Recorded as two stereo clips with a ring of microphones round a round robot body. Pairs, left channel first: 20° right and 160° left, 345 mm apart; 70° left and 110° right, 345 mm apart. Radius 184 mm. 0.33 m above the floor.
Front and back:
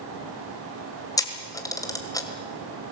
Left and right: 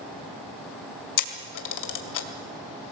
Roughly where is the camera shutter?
Ahead left.